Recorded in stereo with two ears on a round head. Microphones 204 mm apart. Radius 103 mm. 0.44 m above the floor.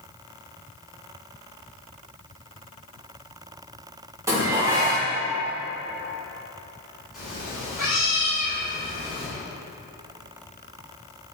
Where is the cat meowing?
Centre (ahead or behind), 1.7 m.